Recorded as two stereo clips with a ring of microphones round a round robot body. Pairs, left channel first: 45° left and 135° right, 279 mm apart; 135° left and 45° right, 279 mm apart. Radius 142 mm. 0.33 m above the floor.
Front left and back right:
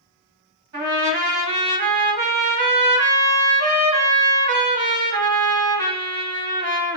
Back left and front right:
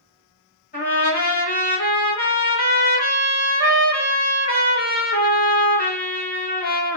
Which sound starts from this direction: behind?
A trumpet, at 0.7 s.